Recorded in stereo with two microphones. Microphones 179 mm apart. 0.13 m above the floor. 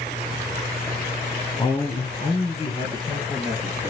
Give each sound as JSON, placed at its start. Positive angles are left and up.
{"t": 1.6, "sound": "a man speaking", "side_deg": 25, "distance_m": 1.4}